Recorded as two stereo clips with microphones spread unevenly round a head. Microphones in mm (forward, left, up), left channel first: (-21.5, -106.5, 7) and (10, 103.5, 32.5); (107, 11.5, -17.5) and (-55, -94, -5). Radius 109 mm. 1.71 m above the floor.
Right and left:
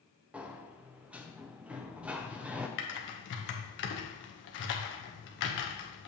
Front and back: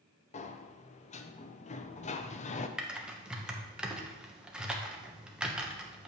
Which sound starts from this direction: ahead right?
Typing on a keyboard, at 2.8 s.